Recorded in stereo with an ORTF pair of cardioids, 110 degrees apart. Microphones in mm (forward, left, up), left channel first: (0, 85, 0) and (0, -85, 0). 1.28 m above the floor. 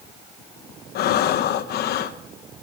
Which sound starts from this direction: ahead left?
Breathing, at 0.9 s.